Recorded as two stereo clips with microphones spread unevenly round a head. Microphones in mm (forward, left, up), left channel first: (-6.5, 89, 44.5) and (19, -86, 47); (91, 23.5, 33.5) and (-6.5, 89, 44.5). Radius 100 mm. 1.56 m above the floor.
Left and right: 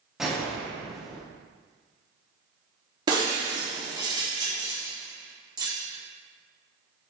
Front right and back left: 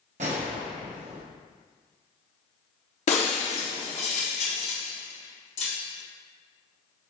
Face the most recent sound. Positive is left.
turn(degrees=-15)